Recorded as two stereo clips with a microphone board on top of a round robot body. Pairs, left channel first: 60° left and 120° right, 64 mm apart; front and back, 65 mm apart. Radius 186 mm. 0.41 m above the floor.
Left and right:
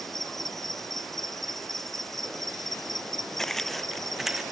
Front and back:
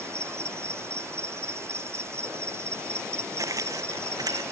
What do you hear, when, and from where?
0.0 s an insect: 145° left
3.4 s footsteps: 145° left; by 4.4 s 155° left